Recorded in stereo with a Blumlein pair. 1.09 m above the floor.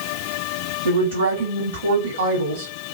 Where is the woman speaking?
60° right, 2 m.